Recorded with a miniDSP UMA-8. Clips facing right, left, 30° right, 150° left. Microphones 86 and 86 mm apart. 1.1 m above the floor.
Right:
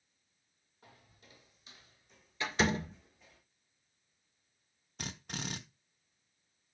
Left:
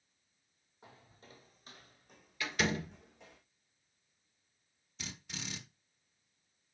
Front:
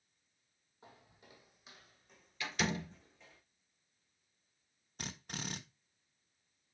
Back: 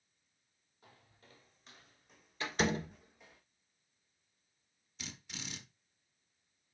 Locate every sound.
0.8 s footsteps: 30° left, 1.6 m; by 3.4 s 75° left, 3 m
2.4 s a door slam: 155° right, 1.7 m
5.0 s a drill: 60° right, 1.1 m